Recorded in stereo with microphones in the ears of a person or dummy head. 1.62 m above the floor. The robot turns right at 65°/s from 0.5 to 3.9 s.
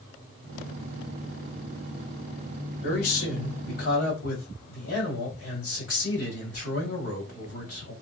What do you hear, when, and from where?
2.8 s a man speaking: 45° left, 1.5 m; by 7.9 s 115° left, 1.5 m